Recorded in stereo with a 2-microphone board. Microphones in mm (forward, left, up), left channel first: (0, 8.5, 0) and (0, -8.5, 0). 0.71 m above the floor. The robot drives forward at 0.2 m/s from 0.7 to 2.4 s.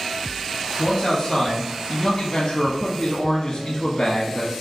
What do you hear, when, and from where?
0.8 s a man speaking: 35° left (ahead or behind), 0.8 m; by 4.5 s 45° left (ahead or behind), 0.6 m